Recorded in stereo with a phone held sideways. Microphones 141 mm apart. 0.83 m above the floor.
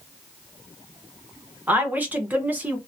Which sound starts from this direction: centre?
A woman speaking, at 1.7 s.